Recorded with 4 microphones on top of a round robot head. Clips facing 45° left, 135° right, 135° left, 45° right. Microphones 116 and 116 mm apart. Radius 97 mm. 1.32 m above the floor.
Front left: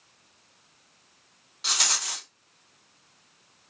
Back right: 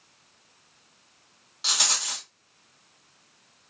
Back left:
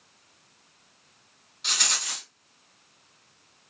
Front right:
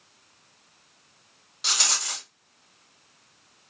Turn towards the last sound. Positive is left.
turn(degrees=-50)